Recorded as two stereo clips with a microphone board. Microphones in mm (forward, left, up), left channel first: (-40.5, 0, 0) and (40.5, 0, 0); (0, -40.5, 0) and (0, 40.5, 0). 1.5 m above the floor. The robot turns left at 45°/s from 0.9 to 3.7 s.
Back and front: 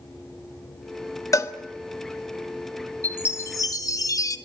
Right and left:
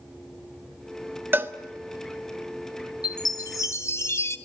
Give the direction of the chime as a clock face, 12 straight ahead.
4 o'clock.